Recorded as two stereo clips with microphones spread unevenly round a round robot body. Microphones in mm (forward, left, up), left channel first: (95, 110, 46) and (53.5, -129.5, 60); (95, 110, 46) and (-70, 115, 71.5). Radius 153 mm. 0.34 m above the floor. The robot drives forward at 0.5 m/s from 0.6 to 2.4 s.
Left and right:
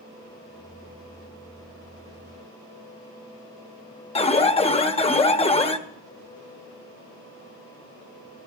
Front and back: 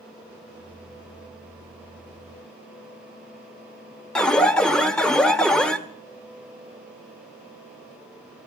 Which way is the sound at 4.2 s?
60° left.